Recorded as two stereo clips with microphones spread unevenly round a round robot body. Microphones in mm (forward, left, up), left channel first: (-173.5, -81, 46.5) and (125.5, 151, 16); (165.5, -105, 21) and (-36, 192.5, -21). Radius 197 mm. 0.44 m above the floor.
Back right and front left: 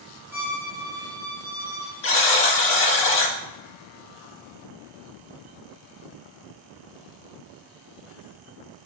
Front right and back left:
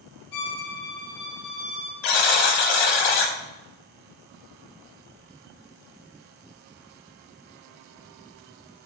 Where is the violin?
40° right, 1.7 m.